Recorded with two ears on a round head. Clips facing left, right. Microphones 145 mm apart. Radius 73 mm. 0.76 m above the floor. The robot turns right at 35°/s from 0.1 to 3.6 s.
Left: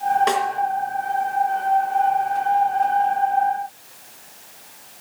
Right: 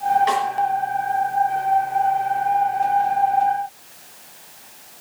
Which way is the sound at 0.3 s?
55° left (ahead or behind).